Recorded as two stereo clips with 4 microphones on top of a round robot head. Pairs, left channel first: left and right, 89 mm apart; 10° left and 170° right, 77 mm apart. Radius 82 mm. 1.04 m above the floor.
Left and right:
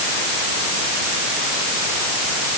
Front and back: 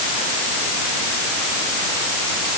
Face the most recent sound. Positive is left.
No sound to turn to.